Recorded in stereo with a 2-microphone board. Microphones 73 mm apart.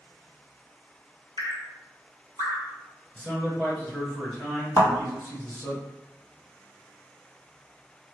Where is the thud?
40° left (ahead or behind), 1.4 m.